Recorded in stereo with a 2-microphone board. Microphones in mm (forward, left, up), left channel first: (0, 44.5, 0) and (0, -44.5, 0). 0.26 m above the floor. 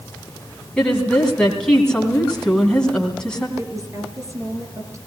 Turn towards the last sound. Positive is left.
turn(degrees=-35)  # may be behind; listen again after turning